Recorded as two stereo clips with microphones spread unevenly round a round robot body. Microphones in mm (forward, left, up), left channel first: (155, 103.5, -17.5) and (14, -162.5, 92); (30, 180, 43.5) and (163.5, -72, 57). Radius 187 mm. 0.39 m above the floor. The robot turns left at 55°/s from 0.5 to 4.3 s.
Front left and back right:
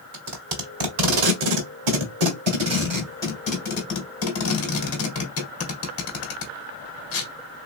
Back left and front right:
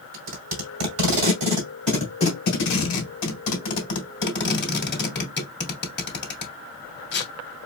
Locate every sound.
0.1 s tape being pulled: 80° right, 1.8 m; by 7.3 s 70° left, 1.8 m